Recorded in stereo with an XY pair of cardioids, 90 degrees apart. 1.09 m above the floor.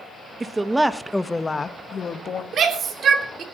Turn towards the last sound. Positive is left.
turn(degrees=-65)